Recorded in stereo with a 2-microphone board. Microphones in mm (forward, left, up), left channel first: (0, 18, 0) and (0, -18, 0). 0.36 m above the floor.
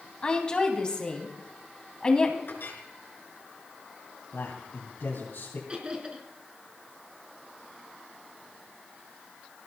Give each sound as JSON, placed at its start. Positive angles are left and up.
{"t": 0.2, "sound": "a woman speaking", "side_deg": 25, "distance_m": 3.0}
{"t": 2.5, "sound": "a clink", "side_deg": 70, "distance_m": 3.5}
{"t": 4.3, "sound": "a man speaking", "side_deg": 65, "distance_m": 3.5}
{"t": 5.7, "sound": "laughter", "side_deg": -25, "distance_m": 4.0}